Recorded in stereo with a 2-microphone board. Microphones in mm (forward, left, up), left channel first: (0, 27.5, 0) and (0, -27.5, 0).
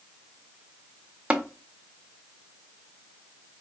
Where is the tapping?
20° right (ahead or behind), 0.6 m.